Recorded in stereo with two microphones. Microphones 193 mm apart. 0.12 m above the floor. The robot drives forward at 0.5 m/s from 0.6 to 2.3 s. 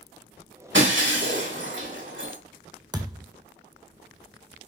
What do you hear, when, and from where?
0.7 s breaking glass: 80° right, 6 m; by 2.4 s 85° right, 5.5 m
2.9 s a thud: 20° right (ahead or behind), 1.4 m